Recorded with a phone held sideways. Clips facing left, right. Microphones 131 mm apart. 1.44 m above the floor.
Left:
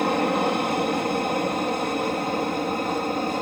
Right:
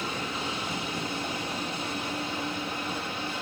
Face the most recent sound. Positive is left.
turn(degrees=45)  # may be behind; listen again after turning